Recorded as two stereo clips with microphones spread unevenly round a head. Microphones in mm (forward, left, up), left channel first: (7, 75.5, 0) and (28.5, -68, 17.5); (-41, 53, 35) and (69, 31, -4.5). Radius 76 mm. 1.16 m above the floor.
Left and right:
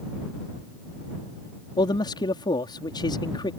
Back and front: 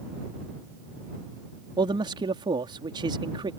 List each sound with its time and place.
1.8 s a man speaking: 40° left